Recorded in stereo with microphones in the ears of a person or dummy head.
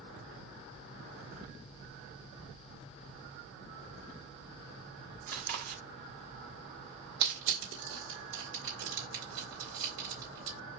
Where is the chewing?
55° right (ahead or behind), 0.9 m.